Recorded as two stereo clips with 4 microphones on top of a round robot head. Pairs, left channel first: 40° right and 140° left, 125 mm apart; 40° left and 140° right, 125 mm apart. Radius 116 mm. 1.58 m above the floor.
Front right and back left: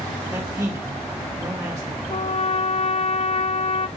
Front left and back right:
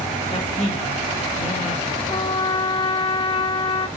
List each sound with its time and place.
0.3 s a man speaking: 70° left, 2.5 m
2.1 s a trumpet: 5° right, 0.6 m